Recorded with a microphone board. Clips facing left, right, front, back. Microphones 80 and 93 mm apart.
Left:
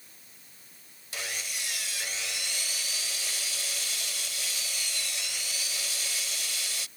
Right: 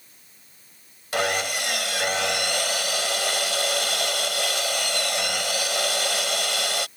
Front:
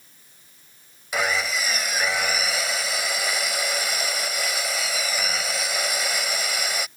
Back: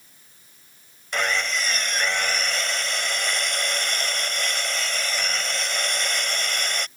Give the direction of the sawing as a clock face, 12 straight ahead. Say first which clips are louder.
Right 15 dB, front 1 dB; 3 o'clock.